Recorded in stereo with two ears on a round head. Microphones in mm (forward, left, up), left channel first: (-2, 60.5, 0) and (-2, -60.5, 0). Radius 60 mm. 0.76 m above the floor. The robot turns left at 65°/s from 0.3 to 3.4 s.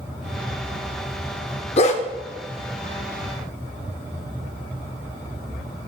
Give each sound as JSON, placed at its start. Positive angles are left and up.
{"t": 1.8, "sound": "a dog barking", "side_deg": 45, "distance_m": 0.6}